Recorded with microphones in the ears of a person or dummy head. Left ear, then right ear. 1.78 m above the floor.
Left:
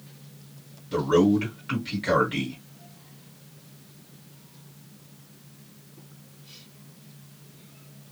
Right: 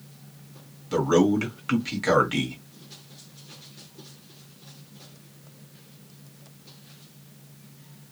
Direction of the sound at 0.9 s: 45° right (ahead or behind).